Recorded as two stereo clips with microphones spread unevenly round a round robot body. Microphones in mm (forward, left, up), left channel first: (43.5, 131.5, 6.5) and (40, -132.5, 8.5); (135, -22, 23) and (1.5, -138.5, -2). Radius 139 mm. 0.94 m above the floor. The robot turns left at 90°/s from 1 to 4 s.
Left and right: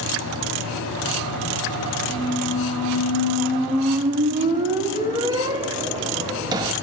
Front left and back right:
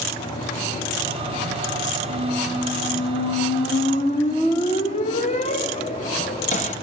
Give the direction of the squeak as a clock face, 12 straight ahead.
7 o'clock.